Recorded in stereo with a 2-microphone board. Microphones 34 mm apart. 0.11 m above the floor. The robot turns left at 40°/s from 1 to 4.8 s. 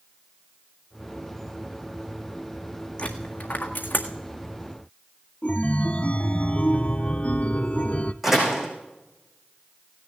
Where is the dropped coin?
40° left (ahead or behind), 1.7 m; by 4.1 s 80° left, 1.7 m.